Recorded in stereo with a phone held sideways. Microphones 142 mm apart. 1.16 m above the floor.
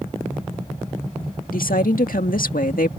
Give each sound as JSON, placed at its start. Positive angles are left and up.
{"t": 1.5, "sound": "a woman speaking", "side_deg": 85}